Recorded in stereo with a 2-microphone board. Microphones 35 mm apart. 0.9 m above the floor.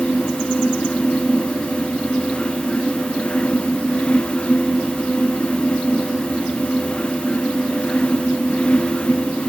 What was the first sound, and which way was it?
Only background noise.